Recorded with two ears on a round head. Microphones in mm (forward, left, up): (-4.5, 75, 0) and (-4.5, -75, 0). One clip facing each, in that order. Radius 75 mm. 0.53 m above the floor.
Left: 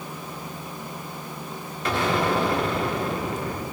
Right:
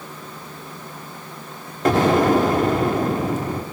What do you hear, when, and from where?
1.9 s an explosion: 40° right (ahead or behind), 1.1 m